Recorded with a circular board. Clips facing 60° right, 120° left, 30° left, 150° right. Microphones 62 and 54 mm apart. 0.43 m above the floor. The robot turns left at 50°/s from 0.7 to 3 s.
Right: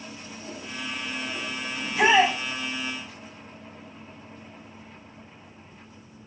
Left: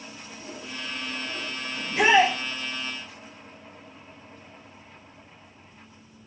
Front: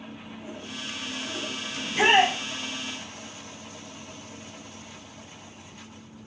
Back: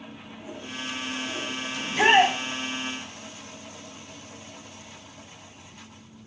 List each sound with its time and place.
1.8 s a shout: 110° left, 1.6 m; by 2.4 s 80° left, 1.6 m